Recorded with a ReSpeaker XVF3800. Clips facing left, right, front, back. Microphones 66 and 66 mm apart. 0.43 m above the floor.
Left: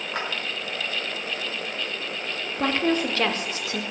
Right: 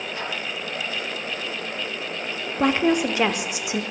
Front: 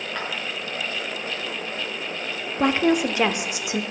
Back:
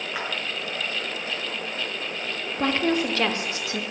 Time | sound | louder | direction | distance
0.1 | a clap | left 4 dB, even | 100° left | 5.5 m
2.6 | a woman speaking | right 4 dB, front 4 dB | 40° right | 0.9 m